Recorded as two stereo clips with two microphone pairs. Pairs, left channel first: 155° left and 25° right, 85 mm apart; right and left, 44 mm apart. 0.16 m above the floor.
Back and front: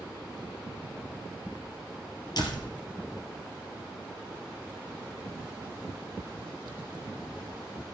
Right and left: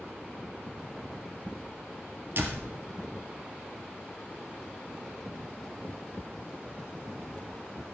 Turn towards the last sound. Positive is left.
turn(degrees=120)